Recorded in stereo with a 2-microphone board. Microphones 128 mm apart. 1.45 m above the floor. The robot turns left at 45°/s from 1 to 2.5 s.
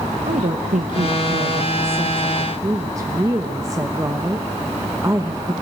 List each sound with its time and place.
0.3 s a woman speaking: 85° right, 1.2 m; by 5.5 s 155° right, 1.2 m